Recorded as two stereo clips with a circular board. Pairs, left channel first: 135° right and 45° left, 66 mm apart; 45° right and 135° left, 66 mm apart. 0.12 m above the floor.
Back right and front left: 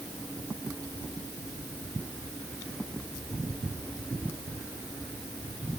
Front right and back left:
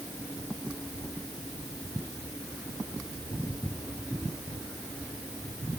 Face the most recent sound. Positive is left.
No sound to turn to.